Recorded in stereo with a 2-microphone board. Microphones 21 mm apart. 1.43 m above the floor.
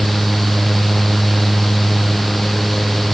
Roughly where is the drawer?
No drawer in this recording.